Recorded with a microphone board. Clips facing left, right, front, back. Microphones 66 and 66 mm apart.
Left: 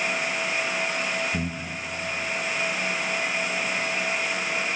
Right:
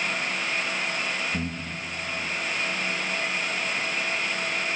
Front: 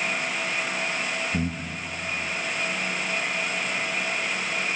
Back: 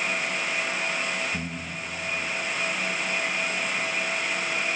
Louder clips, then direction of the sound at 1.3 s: Left 1 dB, front 4 dB; 35° left.